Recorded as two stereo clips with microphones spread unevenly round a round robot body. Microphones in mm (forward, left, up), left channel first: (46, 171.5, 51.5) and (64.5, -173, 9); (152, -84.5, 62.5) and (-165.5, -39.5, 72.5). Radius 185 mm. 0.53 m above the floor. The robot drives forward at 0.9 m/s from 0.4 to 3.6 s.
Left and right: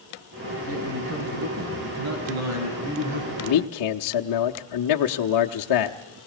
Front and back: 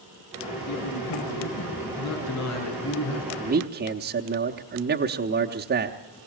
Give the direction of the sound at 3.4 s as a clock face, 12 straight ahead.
8 o'clock.